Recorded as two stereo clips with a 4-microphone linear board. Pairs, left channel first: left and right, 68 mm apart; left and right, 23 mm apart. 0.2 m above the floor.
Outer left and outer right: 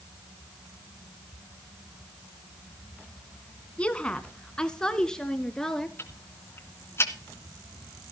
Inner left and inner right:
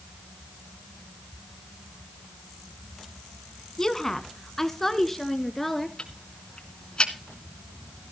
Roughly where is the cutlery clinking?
I don't hear cutlery clinking.